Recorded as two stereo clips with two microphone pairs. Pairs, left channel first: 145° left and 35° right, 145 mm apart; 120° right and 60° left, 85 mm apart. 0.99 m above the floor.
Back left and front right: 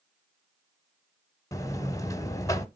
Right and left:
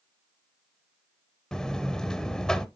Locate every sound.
1.5 s a buzzer: 170° left, 0.9 m